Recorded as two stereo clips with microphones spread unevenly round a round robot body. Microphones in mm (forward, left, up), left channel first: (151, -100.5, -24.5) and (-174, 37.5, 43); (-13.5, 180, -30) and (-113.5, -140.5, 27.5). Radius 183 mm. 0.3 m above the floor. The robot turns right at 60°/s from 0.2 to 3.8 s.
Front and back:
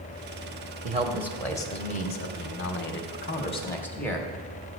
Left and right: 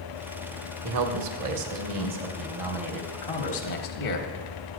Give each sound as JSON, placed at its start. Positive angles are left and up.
{"t": 0.8, "sound": "a man speaking", "azimuth_deg": -130, "distance_m": 1.2}